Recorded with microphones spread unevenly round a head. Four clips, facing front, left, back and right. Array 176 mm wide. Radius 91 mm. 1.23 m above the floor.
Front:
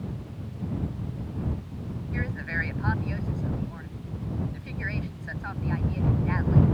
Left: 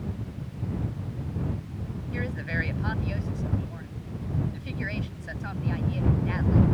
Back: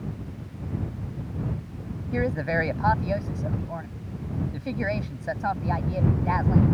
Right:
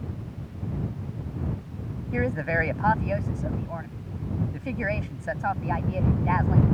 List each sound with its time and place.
2.1 s a woman speaking: 145° right